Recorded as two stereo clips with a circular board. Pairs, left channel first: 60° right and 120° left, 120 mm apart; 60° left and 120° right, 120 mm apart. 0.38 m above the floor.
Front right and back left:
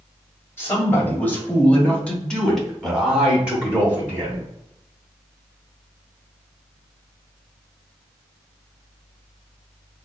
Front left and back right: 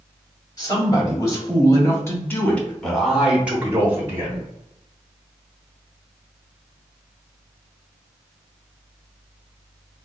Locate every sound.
0.6 s a man speaking: 10° left, 1.9 m; by 4.5 s 175° right, 1.4 m